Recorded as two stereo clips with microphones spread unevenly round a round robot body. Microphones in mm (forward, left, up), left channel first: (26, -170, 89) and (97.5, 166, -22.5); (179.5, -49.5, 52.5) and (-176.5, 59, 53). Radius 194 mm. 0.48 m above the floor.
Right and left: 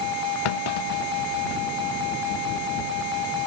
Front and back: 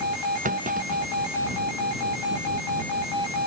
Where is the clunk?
130° right.